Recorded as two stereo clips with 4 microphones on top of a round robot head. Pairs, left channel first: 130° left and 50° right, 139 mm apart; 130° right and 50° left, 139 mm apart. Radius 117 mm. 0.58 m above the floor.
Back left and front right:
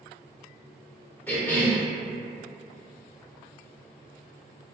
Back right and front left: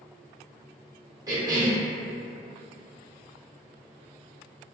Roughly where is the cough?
Left.